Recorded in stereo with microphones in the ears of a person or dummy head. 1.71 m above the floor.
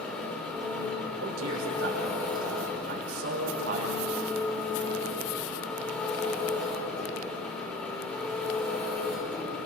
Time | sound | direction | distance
0.0 | an engine running | 5° left (ahead or behind) | 5 m
1.2 | a man speaking | 90° right | 6.5 m